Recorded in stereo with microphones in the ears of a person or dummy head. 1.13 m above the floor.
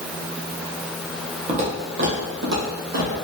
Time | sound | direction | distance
1.5 | footsteps | 40° right (ahead or behind) | 1.5 m